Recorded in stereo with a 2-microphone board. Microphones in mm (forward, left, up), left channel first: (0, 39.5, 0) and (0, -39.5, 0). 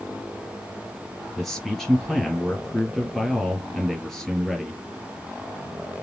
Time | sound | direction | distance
1.4 | a man speaking | centre (ahead or behind) | 2.5 m